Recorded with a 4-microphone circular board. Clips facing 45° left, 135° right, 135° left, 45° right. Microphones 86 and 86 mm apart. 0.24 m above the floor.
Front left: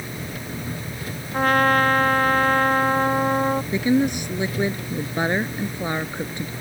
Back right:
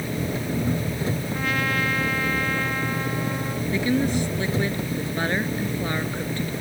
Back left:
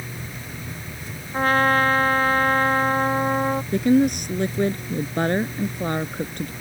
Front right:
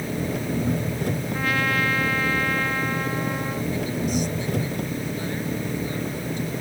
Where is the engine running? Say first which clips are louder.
Back right 6 dB, front right 9 dB; 70° right.